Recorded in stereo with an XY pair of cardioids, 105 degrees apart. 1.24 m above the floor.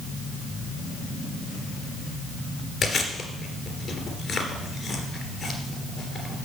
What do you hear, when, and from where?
2.8 s chewing: 50° left, 2.5 m